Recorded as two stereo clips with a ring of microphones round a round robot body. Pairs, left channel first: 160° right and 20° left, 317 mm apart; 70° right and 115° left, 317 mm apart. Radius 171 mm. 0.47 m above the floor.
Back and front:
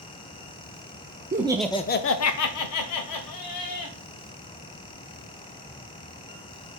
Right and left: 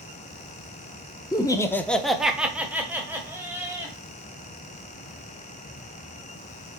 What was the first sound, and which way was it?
Laughter, straight ahead.